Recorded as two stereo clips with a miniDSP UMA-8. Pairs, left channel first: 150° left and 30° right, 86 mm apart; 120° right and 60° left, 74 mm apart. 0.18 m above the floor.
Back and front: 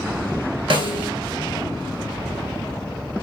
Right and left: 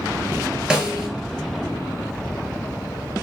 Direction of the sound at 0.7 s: 20° right.